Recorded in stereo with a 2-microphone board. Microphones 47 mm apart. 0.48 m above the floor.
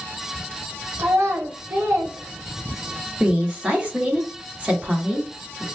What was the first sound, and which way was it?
A child speaking, 75° right (ahead or behind).